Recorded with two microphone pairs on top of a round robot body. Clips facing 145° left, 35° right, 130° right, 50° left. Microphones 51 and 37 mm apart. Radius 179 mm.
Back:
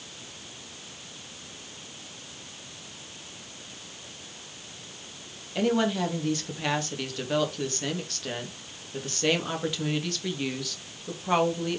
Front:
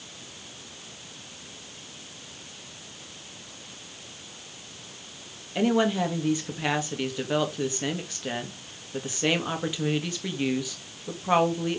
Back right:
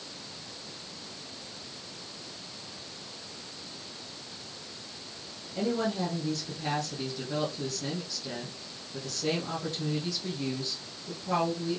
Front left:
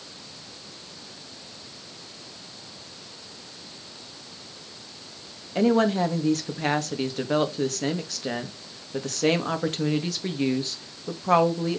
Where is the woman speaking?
40° left, 2.5 m.